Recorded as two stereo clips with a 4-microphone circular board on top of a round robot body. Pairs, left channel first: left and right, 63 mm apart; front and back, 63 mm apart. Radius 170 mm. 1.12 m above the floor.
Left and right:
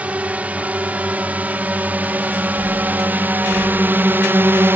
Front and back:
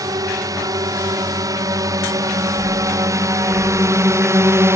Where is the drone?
160° right; by 4.8 s 140° right.